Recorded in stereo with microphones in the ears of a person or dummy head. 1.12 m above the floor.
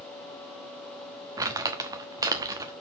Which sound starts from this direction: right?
Crumpling, at 1.4 s.